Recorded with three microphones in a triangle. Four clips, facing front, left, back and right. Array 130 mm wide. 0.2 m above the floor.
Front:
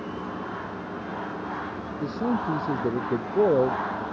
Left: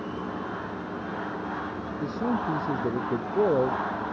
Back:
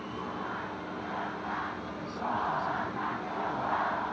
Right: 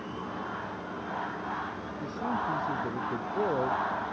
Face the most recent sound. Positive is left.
turn(degrees=20)